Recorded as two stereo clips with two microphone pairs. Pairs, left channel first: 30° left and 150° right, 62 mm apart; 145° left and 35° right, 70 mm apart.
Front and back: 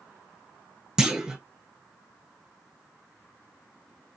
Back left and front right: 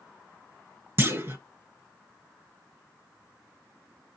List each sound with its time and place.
1.0 s a clunk: 75° right, 0.9 m